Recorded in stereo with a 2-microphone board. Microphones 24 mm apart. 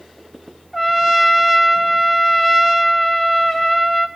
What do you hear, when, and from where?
0.7 s a trumpet: 5° left (ahead or behind), 2.0 m